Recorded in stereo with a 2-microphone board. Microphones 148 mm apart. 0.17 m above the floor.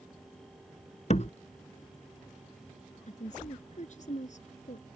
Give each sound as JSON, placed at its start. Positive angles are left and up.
{"t": 1.1, "sound": "a door slam", "side_deg": 50}
{"t": 3.1, "sound": "a woman speaking", "side_deg": 55}